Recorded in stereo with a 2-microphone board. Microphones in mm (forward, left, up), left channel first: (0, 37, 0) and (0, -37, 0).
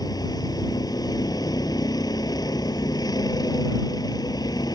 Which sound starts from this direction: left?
A vehicle, at 0.0 s.